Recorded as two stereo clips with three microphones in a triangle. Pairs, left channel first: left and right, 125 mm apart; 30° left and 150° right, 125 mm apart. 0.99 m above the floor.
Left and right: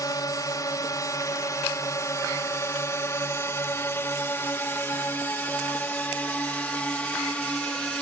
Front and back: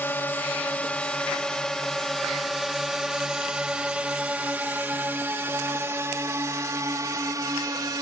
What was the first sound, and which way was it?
A drone, 90° left.